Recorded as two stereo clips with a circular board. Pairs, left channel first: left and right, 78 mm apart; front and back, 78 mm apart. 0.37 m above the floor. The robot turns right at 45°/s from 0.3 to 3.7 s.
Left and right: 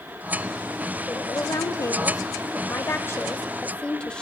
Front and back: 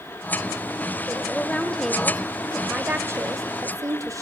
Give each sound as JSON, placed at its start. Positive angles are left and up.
{"t": 1.1, "sound": "a woman speaking", "azimuth_deg": 45, "distance_m": 1.4}